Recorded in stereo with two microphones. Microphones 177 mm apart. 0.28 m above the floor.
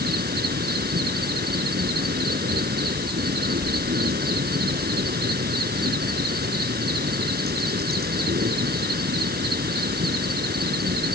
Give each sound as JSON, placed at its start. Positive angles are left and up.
{"t": 0.0, "sound": "an insect", "side_deg": -65}